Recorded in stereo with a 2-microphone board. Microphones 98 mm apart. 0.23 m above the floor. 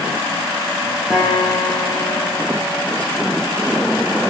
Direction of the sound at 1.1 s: 5° right (ahead or behind).